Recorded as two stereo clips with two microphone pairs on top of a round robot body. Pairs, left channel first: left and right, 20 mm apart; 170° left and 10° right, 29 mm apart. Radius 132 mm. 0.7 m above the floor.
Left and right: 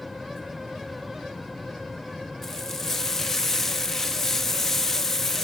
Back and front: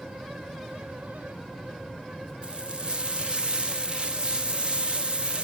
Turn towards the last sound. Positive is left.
turn(degrees=25)